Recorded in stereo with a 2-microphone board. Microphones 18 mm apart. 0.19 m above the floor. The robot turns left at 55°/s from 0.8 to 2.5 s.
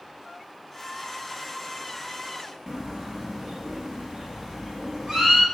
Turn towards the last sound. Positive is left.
turn(degrees=-15)  # may be behind; listen again after turning